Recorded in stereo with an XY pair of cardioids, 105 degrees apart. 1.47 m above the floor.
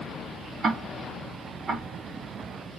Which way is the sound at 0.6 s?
40° right.